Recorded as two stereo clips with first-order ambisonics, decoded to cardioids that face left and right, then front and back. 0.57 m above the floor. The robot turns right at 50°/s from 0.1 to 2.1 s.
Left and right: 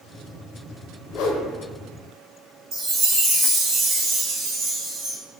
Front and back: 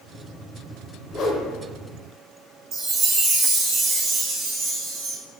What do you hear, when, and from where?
1.1 s a whoosh: 55° left, 0.6 m; by 1.5 s 75° left, 0.6 m
2.7 s a chime: 135° right, 0.8 m